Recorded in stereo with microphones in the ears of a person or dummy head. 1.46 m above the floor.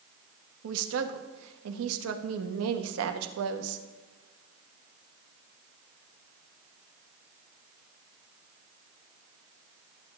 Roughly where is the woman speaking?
Right.